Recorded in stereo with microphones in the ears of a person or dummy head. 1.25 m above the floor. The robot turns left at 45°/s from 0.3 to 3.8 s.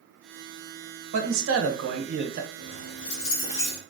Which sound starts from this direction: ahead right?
A man speaking, at 1.1 s.